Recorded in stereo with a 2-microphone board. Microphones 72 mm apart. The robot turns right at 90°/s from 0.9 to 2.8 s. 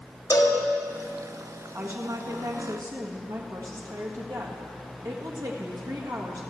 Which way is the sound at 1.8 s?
160° right.